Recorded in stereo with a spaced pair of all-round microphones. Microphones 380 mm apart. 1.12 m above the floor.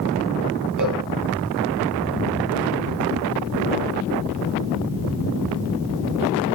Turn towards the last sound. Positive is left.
turn(degrees=-50)  # may be behind; listen again after turning